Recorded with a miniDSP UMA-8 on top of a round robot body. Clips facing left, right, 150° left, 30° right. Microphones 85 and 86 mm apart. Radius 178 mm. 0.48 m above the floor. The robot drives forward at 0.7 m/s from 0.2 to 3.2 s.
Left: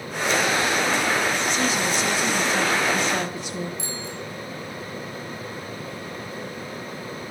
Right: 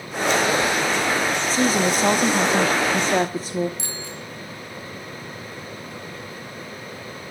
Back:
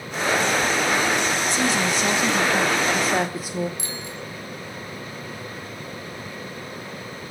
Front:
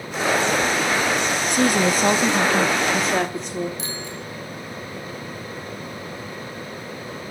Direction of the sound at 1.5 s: 40° right.